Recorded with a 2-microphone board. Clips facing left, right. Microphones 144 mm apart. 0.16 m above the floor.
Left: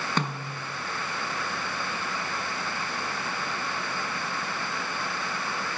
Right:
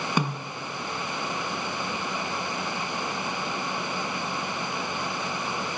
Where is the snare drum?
10° right (ahead or behind), 1.0 m.